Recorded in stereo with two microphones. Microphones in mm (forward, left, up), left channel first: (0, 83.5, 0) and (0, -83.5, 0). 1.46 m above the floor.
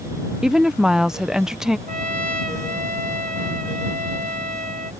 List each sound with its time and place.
0.4 s a woman speaking: 5° right (ahead or behind)
1.9 s a trumpet: 55° right (ahead or behind)